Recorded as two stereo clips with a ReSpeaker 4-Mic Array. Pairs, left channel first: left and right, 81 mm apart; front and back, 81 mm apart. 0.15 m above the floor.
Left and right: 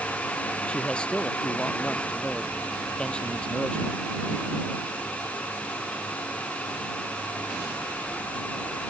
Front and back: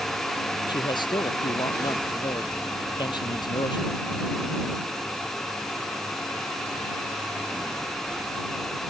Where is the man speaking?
15° left.